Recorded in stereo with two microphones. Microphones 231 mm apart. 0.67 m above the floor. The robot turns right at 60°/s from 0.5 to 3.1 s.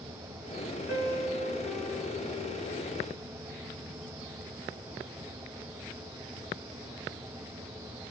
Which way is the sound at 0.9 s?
130° left.